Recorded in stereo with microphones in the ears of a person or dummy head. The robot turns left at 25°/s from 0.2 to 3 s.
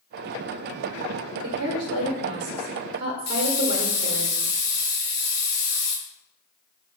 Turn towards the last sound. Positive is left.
turn(degrees=55)  # may be behind; listen again after turning